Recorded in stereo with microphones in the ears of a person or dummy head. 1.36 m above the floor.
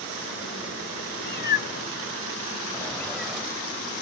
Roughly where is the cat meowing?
Left.